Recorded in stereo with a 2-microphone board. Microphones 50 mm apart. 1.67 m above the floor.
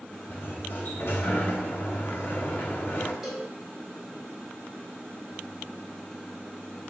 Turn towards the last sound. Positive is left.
turn(degrees=-5)  # may be behind; listen again after turning